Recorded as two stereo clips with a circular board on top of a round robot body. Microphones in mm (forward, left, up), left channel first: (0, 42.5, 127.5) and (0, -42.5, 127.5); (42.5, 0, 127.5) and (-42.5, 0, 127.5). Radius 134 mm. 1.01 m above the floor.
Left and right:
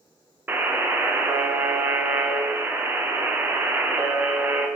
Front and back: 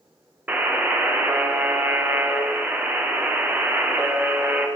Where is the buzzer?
135° right, 0.7 m.